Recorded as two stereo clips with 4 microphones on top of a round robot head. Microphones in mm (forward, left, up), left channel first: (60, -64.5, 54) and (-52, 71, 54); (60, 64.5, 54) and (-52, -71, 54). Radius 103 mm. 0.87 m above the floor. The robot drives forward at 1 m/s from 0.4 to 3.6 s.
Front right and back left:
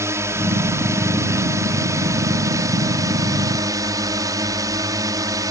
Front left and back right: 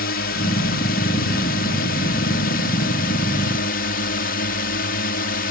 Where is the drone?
60° left.